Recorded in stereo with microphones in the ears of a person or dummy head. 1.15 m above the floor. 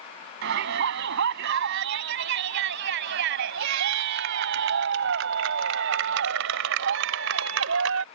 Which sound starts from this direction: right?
A shout, at 0.4 s.